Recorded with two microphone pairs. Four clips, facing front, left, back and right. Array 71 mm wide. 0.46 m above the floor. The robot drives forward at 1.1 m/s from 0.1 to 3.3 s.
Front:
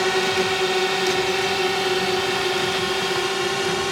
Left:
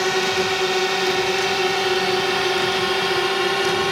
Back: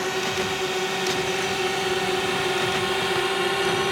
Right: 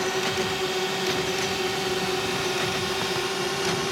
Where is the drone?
55° left; by 3.9 s 100° left.